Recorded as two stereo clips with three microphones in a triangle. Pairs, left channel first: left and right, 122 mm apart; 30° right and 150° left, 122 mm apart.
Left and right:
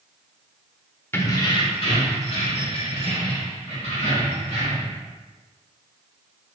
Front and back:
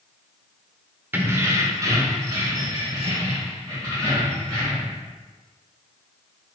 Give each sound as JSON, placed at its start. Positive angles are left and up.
{"t": 1.1, "sound": "keys jangling", "azimuth_deg": 115, "distance_m": 0.5}